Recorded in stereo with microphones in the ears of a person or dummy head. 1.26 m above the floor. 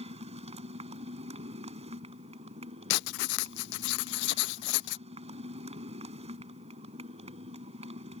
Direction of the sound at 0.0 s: 30° right (ahead or behind).